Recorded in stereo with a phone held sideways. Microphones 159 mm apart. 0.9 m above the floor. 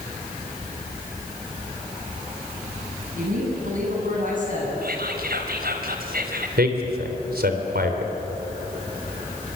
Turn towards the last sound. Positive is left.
turn(degrees=-75)  # may be behind; listen again after turning